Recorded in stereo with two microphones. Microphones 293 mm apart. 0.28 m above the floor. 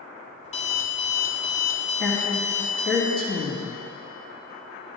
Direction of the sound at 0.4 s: 25° left (ahead or behind).